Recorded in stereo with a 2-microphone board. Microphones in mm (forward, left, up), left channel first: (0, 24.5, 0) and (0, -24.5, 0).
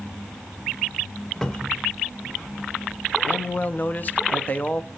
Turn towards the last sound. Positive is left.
turn(degrees=35)  # may be behind; listen again after turning